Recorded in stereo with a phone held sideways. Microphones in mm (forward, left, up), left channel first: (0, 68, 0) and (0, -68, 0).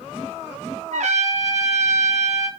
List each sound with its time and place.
0.9 s a trumpet: 60° right (ahead or behind), 0.6 m